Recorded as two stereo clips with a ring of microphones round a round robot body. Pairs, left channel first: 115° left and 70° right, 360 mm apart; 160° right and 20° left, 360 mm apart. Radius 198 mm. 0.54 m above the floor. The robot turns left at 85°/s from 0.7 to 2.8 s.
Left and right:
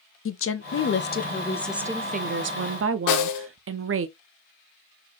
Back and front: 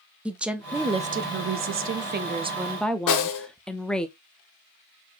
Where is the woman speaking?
105° left, 0.6 m; by 4.1 s 70° right, 0.6 m.